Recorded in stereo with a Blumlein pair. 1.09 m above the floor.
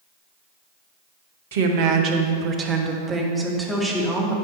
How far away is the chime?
I don't hear a chime.